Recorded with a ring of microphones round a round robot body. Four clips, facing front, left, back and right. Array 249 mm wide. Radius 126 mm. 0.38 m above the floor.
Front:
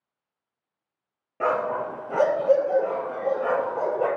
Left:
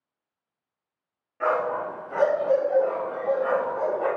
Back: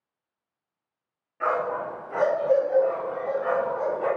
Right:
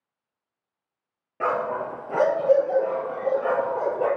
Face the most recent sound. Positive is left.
turn(degrees=-40)